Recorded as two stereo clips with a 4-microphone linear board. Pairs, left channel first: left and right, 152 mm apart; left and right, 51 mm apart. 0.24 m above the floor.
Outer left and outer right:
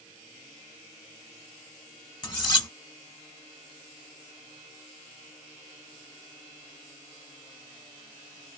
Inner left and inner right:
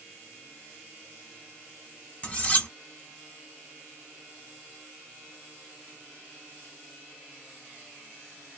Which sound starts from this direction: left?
Cutlery clinking, at 2.2 s.